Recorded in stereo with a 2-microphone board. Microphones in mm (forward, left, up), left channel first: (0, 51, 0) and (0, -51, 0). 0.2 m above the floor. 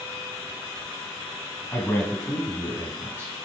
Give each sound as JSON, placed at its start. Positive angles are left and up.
{"t": 1.7, "sound": "a man speaking", "side_deg": 20, "distance_m": 1.3}